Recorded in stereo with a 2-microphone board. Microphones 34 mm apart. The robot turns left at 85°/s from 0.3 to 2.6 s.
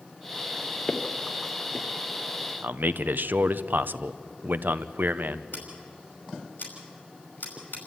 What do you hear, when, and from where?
0.9 s footsteps: 15° left (ahead or behind), 1.7 m; by 1.9 s 40° left (ahead or behind), 1.7 m
2.6 s a man speaking: 75° right (ahead or behind), 0.8 m
5.5 s scissors: 60° left (ahead or behind), 5.5 m